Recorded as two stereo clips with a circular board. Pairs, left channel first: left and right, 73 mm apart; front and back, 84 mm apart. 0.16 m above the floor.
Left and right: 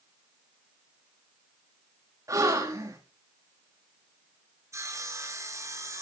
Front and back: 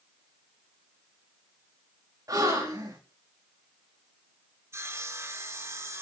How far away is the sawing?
About 3 m.